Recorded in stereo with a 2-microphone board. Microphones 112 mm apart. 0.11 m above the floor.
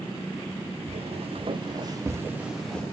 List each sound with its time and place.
0.9 s footsteps: 65° right (ahead or behind), 1.5 m; by 2.8 s 10° left (ahead or behind), 0.9 m